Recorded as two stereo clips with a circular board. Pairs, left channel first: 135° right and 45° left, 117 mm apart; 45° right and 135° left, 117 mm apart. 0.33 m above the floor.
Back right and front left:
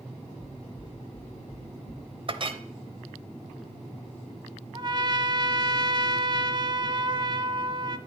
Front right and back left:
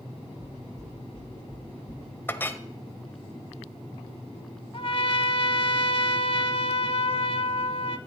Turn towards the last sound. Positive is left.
turn(degrees=-5)